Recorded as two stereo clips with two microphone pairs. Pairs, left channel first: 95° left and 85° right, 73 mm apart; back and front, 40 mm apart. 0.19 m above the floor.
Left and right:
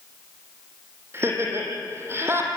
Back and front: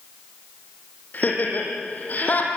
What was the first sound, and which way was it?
Laughter, 140° right.